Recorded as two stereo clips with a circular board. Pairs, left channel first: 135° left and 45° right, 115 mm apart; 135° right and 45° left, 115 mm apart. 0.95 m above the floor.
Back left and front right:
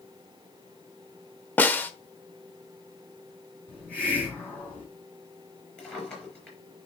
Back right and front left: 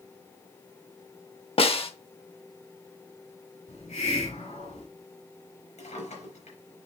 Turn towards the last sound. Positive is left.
turn(degrees=-140)